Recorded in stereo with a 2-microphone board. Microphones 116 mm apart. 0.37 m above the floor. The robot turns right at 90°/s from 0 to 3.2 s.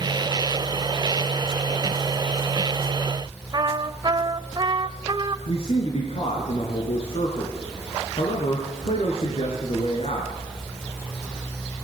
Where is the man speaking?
60° left (ahead or behind), 4 m.